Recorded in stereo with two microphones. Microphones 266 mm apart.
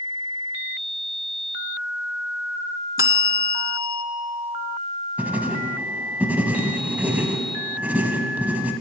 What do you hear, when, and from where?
3.0 s a bell: 55° left (ahead or behind), 0.5 m
5.2 s writing: 5° right (ahead or behind), 0.6 m